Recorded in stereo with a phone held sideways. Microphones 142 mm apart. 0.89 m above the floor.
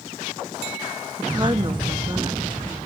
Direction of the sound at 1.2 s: 25° right (ahead or behind).